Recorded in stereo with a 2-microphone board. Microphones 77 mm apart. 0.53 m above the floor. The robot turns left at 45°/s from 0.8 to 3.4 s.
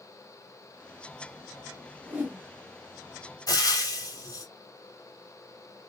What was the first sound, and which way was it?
A whoosh, 20° right (ahead or behind).